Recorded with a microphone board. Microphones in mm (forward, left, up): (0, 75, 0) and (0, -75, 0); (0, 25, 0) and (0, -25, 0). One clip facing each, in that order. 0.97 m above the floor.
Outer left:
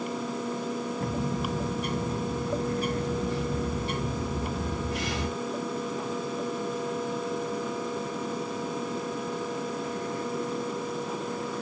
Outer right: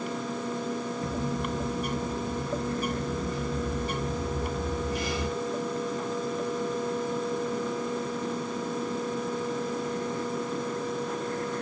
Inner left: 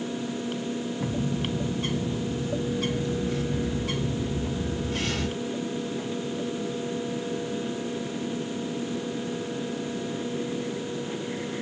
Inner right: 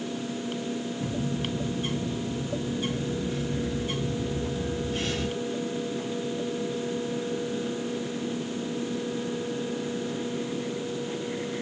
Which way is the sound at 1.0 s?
80° left.